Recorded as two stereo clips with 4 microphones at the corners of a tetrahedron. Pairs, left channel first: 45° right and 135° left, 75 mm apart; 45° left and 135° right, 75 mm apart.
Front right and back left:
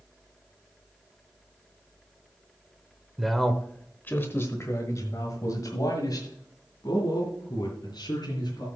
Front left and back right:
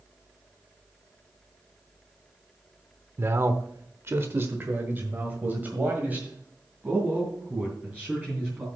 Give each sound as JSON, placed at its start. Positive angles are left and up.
{"t": 3.2, "sound": "a man speaking", "azimuth_deg": -140, "distance_m": 0.9}